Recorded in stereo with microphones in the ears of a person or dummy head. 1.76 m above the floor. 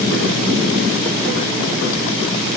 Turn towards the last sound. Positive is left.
No sound to turn to.